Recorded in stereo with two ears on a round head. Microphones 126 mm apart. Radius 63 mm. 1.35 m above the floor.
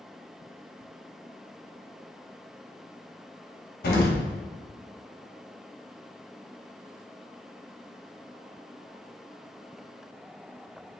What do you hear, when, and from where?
3.8 s an explosion: 70° left (ahead or behind), 1.0 m